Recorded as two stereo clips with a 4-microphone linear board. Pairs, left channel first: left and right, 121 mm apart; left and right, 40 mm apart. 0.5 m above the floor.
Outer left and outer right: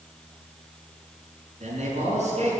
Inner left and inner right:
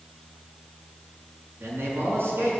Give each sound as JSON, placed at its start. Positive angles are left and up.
{"t": 1.6, "sound": "a man speaking", "side_deg": -70, "distance_m": 6.0}